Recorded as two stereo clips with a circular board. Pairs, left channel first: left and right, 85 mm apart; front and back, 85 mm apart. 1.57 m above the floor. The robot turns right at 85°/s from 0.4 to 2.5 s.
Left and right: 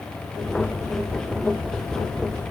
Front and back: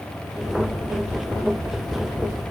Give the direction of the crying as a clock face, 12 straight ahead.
No crying in this recording.